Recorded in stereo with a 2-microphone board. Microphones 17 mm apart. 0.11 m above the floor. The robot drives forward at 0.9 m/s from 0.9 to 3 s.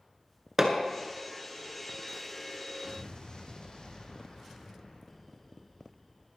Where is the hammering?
30° right (ahead or behind), 1.4 m.